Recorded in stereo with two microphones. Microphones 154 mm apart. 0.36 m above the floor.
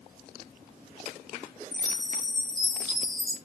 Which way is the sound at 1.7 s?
5° left (ahead or behind).